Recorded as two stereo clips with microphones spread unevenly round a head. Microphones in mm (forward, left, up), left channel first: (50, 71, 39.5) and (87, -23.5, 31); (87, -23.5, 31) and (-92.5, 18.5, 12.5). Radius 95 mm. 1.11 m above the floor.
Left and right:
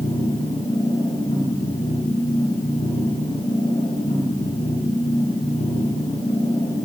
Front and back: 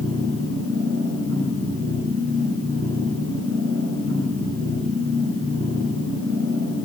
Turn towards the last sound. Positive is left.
turn(degrees=145)